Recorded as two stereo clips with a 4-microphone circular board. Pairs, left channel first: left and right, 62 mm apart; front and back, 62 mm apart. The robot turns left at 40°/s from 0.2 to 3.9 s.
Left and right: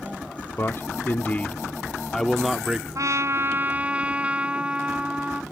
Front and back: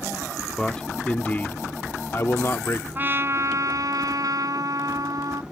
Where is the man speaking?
75° left; by 2.9 s 15° right.